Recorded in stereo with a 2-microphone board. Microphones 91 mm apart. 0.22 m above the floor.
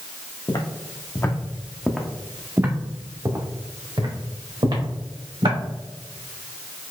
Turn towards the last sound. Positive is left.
turn(degrees=-60)  # may be behind; listen again after turning